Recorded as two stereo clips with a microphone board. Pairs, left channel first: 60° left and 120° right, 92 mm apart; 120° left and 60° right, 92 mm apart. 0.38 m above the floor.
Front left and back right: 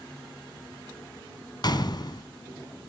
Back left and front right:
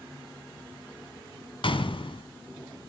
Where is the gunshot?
100° left, 1.5 m.